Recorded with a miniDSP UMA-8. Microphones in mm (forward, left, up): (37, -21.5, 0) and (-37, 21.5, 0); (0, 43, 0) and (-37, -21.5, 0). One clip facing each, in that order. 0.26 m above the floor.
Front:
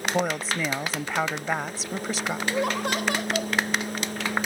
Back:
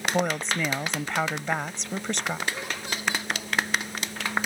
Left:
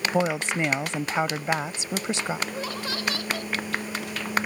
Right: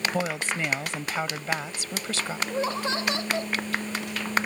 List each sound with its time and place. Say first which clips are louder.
0.1 s a woman speaking: even, left 4 dB; 45° left
2.5 s laughter: front 8 dB, right 4 dB; 55° right